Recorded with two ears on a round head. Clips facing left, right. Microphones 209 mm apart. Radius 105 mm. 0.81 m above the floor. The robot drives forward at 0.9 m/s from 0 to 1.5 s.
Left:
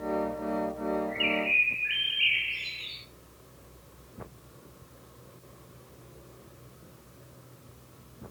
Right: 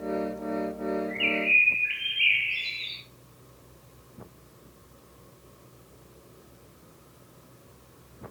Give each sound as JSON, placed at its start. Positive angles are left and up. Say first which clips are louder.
{"t": 1.1, "sound": "a bird", "louder": "even", "side_deg": -10, "distance_m": 5.0}